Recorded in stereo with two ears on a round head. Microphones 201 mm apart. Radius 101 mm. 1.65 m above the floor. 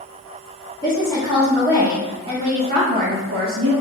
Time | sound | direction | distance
0.8 | a woman speaking | 15° left (ahead or behind) | 1.8 m